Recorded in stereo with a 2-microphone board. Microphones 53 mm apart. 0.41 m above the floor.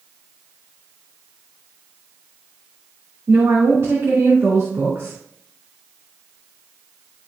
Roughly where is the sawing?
No sawing in this recording.